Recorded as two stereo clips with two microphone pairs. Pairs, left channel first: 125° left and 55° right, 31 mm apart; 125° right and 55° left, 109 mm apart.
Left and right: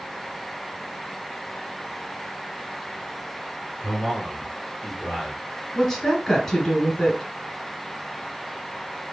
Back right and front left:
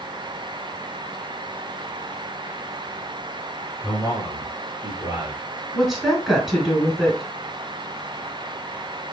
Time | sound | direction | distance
3.8 | a man speaking | straight ahead | 1.9 m
5.7 | a woman speaking | 140° left | 1.1 m